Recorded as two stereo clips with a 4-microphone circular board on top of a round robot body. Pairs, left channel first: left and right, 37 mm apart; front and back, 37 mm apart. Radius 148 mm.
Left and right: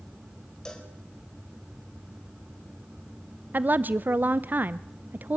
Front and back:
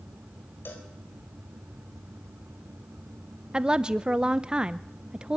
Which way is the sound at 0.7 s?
20° left.